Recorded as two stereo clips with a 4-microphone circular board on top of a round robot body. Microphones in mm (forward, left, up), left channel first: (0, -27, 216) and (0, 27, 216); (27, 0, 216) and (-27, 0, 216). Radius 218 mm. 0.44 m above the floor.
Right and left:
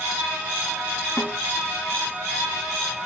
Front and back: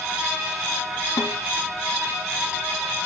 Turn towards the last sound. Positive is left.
turn(degrees=-20)